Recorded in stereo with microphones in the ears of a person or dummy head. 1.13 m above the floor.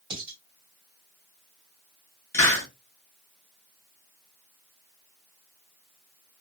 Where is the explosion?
I don't hear an explosion.